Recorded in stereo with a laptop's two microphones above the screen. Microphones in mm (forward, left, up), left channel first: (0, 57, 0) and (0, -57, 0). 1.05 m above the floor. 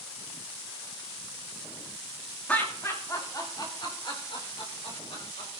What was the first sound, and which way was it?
Laughter, 15° left (ahead or behind).